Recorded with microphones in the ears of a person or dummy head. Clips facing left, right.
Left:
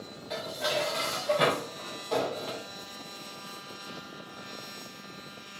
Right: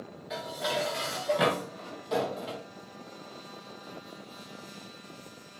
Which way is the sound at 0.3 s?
5° right (ahead or behind).